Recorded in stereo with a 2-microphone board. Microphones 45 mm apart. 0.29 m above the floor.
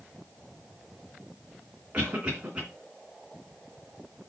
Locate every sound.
1.9 s a cough: 20° right (ahead or behind), 3 m